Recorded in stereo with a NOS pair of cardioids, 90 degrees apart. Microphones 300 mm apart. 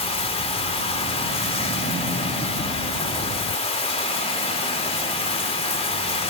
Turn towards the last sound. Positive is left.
turn(degrees=20)